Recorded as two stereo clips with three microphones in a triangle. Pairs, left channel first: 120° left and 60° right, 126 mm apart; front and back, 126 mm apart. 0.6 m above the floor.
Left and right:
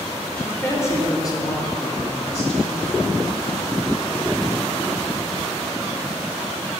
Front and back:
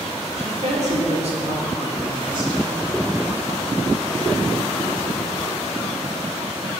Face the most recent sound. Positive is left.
turn(degrees=125)